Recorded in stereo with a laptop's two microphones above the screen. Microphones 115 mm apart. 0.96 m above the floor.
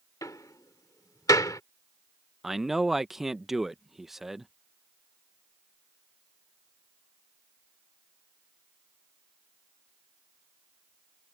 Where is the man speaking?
5° right (ahead or behind).